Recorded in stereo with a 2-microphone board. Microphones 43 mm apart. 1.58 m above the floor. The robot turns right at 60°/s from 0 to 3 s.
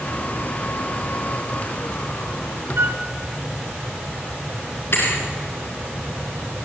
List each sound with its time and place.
2.8 s a flute: 60° right (ahead or behind), 0.9 m; by 3.0 s 45° right (ahead or behind), 0.9 m
4.9 s a thud: 55° left (ahead or behind), 5 m